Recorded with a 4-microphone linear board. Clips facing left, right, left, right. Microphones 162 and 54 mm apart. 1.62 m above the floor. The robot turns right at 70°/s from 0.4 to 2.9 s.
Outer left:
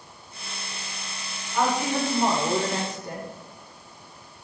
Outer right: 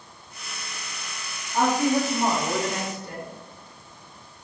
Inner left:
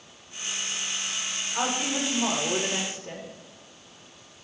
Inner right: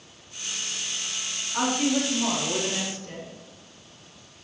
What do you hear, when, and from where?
1.5 s a woman speaking: 45° right, 4 m; by 3.3 s 50° left, 4 m